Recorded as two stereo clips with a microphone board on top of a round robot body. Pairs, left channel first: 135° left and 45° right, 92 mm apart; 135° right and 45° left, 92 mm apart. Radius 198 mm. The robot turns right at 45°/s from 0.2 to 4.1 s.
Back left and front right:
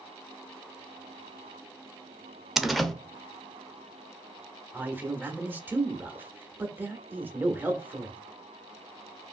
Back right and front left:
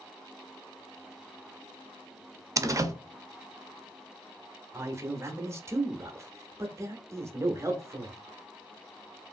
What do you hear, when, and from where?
2.6 s a door slam: 40° left, 0.7 m; by 3.0 s 55° left, 0.7 m
4.7 s a man speaking: 10° left, 1.0 m